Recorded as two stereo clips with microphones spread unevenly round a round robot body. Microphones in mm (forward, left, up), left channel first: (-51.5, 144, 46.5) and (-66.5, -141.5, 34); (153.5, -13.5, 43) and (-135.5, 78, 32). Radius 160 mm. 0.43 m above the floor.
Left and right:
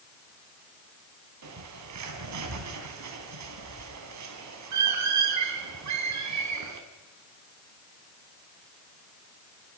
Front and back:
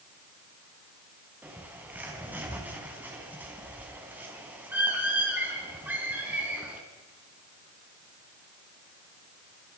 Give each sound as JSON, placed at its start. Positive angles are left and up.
{"t": 1.4, "sound": "a bird", "azimuth_deg": -115, "distance_m": 3.5}